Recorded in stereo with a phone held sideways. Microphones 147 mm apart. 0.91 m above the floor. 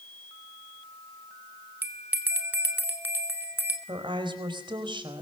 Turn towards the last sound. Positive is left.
turn(degrees=-35)  # may be behind; listen again after turning